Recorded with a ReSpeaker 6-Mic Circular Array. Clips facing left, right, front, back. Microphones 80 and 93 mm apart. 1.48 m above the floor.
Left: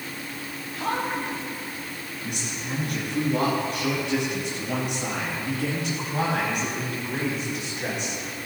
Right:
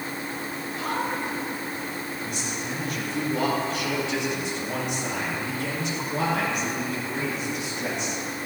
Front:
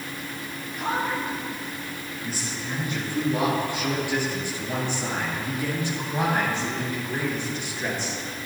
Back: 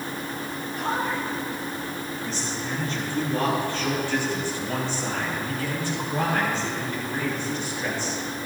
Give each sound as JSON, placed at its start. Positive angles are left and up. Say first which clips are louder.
{"t": 0.8, "sound": "a man speaking", "louder": "left 1 dB, front 1 dB", "azimuth_deg": 90, "distance_m": 5.5}